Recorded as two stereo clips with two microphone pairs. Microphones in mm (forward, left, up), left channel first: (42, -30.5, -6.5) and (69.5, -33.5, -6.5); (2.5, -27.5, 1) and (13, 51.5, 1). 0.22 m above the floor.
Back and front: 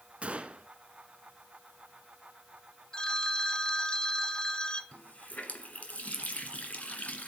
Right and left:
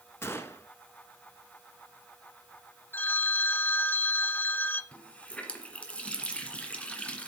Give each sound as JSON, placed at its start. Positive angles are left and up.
{"t": 0.2, "sound": "a gunshot", "azimuth_deg": -40, "distance_m": 1.0}
{"t": 2.9, "sound": "a phone ringing", "azimuth_deg": -140, "distance_m": 0.6}
{"t": 4.9, "sound": "a running tap", "azimuth_deg": -170, "distance_m": 1.8}